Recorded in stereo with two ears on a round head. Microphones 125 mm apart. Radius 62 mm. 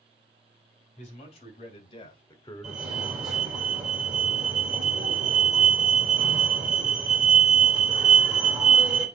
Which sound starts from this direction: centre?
A fire alarm, at 2.6 s.